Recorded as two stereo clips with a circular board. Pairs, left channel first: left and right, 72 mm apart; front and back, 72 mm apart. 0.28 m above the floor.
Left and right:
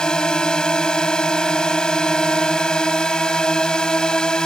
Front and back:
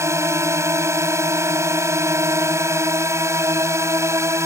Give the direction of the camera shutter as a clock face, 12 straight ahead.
No camera shutter in this recording.